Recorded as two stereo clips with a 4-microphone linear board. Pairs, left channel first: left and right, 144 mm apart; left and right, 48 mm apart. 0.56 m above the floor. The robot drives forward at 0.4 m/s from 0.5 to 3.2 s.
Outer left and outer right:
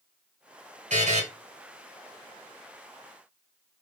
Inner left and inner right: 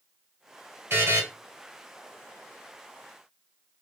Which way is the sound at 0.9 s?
55° right (ahead or behind).